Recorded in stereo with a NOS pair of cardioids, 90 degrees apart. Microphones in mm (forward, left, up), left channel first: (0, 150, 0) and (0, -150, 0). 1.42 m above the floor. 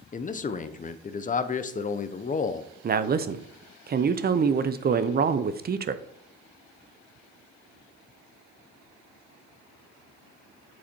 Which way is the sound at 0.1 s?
25° left.